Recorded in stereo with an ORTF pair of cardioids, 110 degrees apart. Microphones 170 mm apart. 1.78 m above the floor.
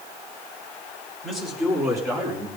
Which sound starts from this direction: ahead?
A man speaking, at 1.2 s.